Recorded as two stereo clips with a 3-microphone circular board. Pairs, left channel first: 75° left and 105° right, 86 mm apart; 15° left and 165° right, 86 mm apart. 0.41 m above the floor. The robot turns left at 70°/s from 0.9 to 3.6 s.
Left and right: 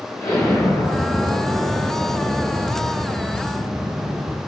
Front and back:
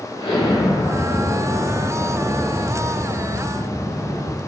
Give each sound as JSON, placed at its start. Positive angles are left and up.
{"t": 0.2, "sound": "an explosion", "azimuth_deg": 30, "distance_m": 0.7}